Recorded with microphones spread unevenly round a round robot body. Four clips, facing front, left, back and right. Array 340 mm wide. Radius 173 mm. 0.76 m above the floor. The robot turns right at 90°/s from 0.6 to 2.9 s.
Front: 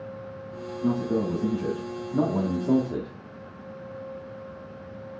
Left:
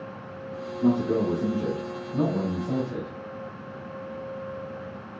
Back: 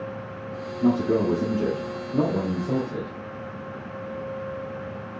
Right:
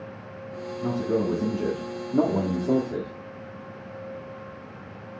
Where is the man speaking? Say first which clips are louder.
Left 3 dB, back 4 dB; 155° left, 1.5 m; by 3.1 s 15° right, 1.5 m.